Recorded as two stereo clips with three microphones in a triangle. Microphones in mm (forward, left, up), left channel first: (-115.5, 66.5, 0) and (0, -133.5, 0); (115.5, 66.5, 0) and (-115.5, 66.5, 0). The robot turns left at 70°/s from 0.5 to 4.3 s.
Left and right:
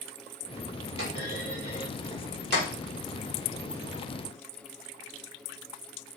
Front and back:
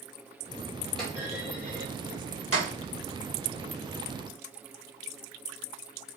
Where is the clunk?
90° right, 1.2 m; by 2.7 s 150° left, 1.2 m.